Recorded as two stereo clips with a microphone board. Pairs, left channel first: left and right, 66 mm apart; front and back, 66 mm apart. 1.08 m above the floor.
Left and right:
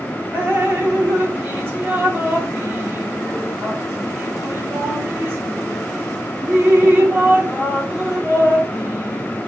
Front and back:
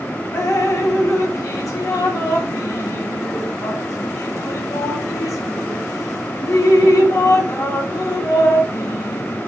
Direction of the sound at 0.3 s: 30° right.